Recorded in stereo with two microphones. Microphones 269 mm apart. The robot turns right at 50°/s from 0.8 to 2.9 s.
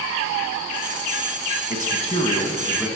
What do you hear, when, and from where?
1.7 s a man speaking: 120° left, 1.5 m; by 2.9 s straight behind, 1.5 m